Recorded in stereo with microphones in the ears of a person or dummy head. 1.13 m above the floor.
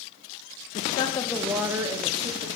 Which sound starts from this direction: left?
A woman speaking, at 0.8 s.